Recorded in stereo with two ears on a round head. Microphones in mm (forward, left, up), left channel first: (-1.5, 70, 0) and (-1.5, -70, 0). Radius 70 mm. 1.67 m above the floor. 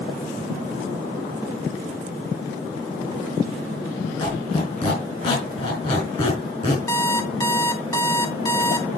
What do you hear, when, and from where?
4.2 s a squeak: 35° left (ahead or behind), 4.5 m
6.9 s an alarm clock: 15° left (ahead or behind), 1.0 m